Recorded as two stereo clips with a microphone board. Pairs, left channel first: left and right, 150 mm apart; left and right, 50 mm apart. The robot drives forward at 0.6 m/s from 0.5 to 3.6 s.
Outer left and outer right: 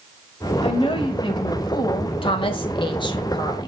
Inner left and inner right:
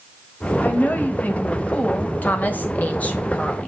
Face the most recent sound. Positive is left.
turn(degrees=30)  # may be behind; listen again after turning